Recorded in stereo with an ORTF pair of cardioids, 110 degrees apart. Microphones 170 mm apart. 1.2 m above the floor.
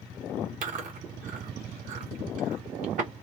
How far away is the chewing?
About 1.5 m.